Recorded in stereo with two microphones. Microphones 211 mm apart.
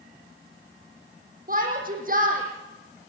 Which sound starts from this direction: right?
A shout, at 1.5 s.